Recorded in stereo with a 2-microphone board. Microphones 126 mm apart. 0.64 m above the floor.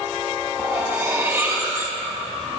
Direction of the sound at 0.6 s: 15° right (ahead or behind).